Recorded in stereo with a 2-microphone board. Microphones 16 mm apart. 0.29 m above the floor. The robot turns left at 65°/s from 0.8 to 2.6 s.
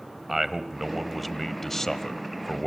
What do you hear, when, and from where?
0.3 s a man speaking: 160° right, 1.1 m; by 2.7 s 85° left, 1.1 m